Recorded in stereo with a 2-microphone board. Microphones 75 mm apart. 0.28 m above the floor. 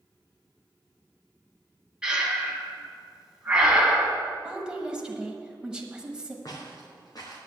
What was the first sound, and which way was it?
Breathing, 10° right (ahead or behind).